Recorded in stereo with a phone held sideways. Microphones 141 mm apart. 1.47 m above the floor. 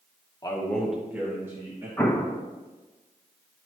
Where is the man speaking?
25° left (ahead or behind), 1.0 m; by 1.9 s 25° right (ahead or behind), 2.5 m.